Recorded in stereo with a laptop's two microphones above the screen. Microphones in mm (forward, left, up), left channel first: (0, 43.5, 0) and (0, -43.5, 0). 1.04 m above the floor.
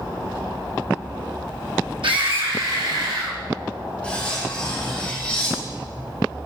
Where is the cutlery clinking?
15° left (ahead or behind), 1.5 m.